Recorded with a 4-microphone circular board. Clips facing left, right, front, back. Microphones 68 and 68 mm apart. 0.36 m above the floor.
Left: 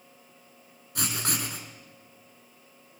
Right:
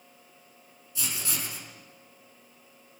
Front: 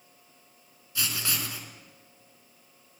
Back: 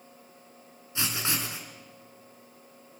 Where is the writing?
115° left, 4 m.